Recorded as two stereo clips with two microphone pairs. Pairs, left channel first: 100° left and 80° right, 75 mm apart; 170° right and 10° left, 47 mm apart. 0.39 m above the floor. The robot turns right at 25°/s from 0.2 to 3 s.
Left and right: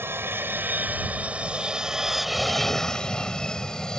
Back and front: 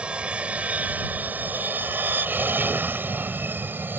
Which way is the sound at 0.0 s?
40° right.